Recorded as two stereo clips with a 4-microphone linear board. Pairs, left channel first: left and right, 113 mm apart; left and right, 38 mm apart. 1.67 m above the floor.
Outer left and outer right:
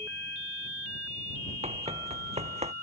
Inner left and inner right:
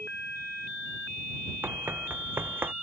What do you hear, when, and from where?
1.6 s running footsteps: 70° right (ahead or behind)